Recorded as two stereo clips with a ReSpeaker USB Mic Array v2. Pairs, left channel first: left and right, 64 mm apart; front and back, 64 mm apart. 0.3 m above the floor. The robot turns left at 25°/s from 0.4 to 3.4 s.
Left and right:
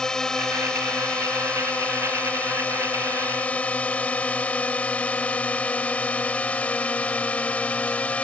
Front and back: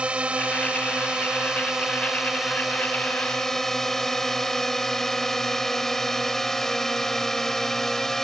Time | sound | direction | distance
0.0 | a drone | 150° left | ?